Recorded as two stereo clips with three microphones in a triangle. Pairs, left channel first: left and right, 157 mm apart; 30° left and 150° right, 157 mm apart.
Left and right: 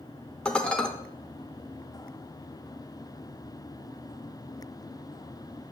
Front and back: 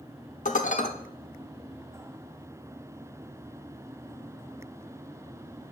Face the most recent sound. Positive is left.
turn(degrees=10)